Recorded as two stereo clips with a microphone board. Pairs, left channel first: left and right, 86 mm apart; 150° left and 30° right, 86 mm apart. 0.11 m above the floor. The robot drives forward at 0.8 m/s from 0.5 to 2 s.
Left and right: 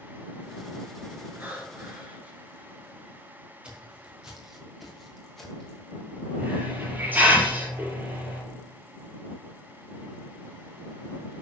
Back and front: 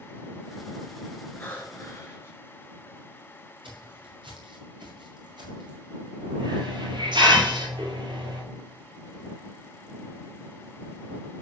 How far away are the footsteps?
About 4.5 m.